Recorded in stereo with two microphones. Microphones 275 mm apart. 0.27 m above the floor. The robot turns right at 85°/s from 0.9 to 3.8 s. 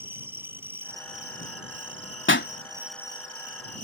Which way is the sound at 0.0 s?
170° right.